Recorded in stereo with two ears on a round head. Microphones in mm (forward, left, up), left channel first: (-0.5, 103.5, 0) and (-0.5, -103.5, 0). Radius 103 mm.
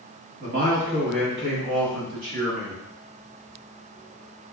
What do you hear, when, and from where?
0.4 s a man speaking: 35° right (ahead or behind), 1.3 m; by 2.8 s 60° right (ahead or behind), 2.5 m